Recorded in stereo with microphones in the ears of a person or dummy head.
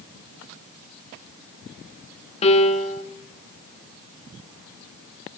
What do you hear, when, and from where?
2.4 s a piano: 30° left (ahead or behind), 1.9 m